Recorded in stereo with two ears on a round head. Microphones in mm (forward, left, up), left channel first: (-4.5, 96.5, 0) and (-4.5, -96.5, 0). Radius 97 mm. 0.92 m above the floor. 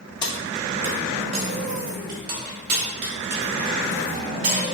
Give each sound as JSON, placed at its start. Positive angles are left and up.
{"t": 0.2, "sound": "keys jangling", "side_deg": 20, "distance_m": 0.5}